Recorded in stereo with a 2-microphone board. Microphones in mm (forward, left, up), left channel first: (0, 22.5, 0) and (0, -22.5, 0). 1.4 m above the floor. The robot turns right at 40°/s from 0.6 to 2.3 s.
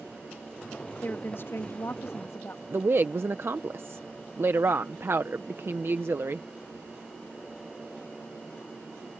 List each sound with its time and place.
1.0 s a woman speaking: 45° left; by 2.6 s 95° left
2.7 s a woman speaking: 60° right (ahead or behind)